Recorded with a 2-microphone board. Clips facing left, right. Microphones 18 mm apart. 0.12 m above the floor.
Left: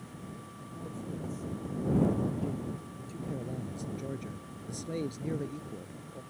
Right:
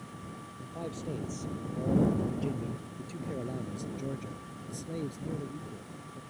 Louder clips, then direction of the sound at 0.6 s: Right 4 dB; 50° right (ahead or behind).